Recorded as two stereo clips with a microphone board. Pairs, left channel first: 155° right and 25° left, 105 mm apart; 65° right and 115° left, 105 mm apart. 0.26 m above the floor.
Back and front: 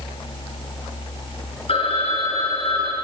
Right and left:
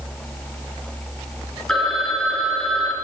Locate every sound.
1.7 s a phone ringing: 150° right, 2.5 m